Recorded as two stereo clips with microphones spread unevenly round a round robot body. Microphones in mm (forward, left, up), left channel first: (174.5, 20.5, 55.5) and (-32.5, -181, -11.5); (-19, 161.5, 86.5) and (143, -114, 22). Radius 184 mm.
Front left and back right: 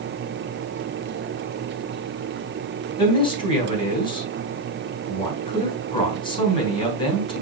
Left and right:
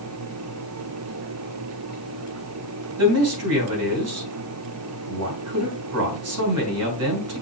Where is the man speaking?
35° right, 3.5 m.